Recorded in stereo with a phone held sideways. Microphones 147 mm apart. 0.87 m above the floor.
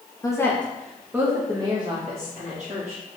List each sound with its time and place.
0.2 s a woman speaking: 20° left (ahead or behind), 0.8 m; by 3.0 s 55° right (ahead or behind), 1.4 m